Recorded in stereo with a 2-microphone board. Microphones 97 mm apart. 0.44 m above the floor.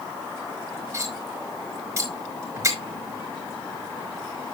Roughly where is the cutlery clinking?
Right.